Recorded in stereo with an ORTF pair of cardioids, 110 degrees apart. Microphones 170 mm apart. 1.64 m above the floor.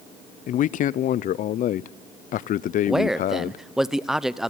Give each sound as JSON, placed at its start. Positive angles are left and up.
{"t": 0.5, "sound": "a man speaking", "azimuth_deg": 50, "distance_m": 0.6}
{"t": 2.9, "sound": "a man speaking", "azimuth_deg": 0, "distance_m": 0.8}